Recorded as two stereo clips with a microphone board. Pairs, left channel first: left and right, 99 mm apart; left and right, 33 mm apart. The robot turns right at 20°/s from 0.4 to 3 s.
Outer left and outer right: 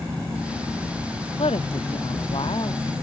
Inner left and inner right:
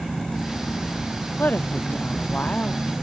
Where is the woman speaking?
95° left; by 2.9 s 130° left.